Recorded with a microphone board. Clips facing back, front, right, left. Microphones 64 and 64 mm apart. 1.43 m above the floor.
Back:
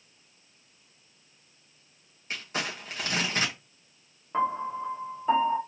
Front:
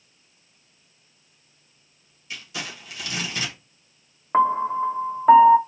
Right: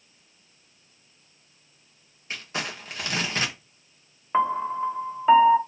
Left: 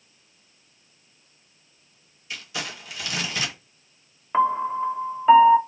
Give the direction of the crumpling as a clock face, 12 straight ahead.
5 o'clock.